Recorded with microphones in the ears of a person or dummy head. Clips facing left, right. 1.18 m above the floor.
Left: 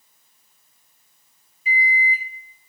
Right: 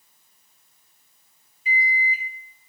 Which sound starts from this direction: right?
A microwave, at 1.6 s.